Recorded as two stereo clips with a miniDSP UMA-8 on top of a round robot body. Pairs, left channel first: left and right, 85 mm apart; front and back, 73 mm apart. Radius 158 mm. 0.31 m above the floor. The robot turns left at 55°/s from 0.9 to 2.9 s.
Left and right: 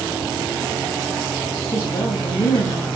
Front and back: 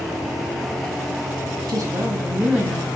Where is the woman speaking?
150° left, 4 m; by 2.9 s 85° left, 4 m.